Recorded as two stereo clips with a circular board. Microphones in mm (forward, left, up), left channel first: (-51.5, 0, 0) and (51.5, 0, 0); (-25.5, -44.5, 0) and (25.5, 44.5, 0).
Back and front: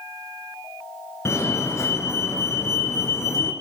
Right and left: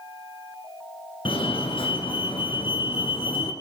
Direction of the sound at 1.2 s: 125° right.